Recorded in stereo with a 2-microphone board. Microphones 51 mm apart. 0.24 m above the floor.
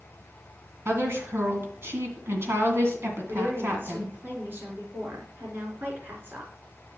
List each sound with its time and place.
0.8 s a woman speaking: 55° right (ahead or behind), 2.5 m
3.3 s a woman speaking: 45° right (ahead or behind), 3.5 m